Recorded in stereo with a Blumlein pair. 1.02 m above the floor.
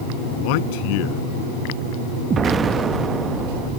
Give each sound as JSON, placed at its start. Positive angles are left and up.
{"t": 0.3, "sound": "a man speaking", "azimuth_deg": 45}
{"t": 2.3, "sound": "an explosion", "azimuth_deg": -20}